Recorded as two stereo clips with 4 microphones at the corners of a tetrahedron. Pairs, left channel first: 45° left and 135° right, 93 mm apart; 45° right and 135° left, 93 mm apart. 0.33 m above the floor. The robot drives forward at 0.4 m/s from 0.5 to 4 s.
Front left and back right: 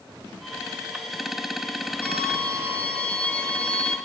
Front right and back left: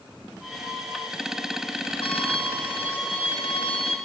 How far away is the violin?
About 8 m.